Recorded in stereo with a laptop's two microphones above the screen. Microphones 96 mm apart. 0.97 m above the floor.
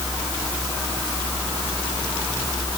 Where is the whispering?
No whispering in this recording.